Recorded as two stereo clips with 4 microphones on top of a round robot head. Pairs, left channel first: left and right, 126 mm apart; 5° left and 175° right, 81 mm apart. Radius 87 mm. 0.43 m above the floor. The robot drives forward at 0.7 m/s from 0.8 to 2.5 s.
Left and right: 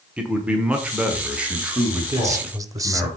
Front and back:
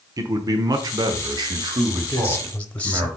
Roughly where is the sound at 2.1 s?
Ahead right.